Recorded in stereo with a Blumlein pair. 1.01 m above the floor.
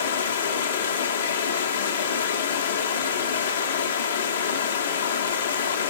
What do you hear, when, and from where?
0.0 s running water: 65° left, 0.9 m